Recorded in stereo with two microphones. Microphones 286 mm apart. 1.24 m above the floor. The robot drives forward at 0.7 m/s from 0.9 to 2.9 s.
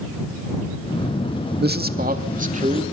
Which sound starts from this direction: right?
A man speaking, at 1.6 s.